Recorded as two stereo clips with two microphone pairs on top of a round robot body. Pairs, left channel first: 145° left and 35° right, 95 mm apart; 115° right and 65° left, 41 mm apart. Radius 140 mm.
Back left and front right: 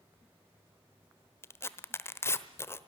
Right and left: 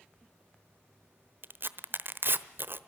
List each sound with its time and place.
1.4 s tearing paper: 80° left, 1.1 m